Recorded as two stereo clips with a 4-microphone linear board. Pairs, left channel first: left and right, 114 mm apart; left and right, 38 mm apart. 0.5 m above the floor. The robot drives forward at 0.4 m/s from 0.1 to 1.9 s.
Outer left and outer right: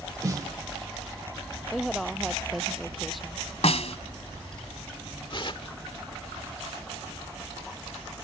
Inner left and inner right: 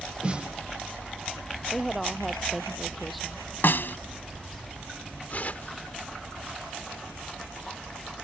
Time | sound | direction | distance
0.2 | a snare drum | 30° right (ahead or behind) | ?
1.7 | a woman speaking | centre (ahead or behind) | ?
3.6 | a snare drum | 65° left (ahead or behind) | ?
5.3 | tearing paper | 45° left (ahead or behind) | ?